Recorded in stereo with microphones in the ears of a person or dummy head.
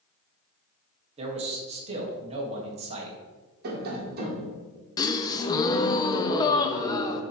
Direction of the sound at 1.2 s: 40° right (ahead or behind).